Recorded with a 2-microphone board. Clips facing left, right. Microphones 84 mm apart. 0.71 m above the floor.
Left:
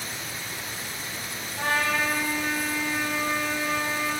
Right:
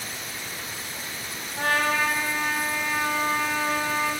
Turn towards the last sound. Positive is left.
turn(degrees=-70)  # may be behind; listen again after turning